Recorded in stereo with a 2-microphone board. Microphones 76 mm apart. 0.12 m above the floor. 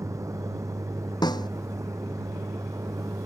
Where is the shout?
I don't hear a shout.